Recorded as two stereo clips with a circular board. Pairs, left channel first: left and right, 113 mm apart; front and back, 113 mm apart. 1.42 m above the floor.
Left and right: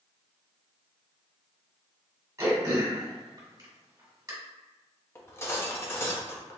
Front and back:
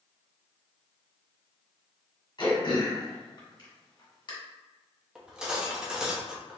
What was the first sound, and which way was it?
Throat clearing, 35° right.